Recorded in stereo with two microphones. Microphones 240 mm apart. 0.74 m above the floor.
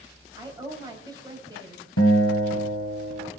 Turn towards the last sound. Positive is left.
turn(degrees=75)  # may be behind; listen again after turning